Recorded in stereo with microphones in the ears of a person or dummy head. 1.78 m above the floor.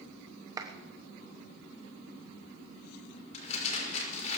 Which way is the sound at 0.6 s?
20° right (ahead or behind).